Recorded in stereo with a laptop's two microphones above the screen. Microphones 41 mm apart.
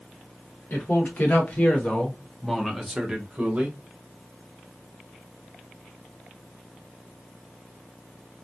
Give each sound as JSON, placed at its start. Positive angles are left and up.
{"t": 0.7, "sound": "a man speaking", "side_deg": 55, "distance_m": 1.4}